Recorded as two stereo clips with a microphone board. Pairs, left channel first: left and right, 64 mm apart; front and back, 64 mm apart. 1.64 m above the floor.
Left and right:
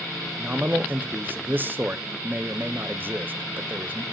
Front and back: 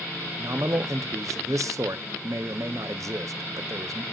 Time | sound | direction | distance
0.4 | a man speaking | 150° right | 0.7 m